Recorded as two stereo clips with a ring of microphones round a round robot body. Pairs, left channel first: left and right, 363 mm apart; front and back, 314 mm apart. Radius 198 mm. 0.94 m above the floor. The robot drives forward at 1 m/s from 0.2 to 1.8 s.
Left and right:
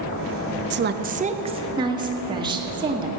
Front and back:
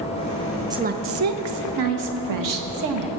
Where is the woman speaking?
110° right, 0.6 m; by 3.1 s 165° right, 1.3 m.